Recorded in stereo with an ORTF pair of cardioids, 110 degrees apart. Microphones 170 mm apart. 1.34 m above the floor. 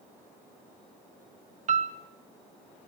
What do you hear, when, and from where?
1.7 s a piano: 45° right, 1.6 m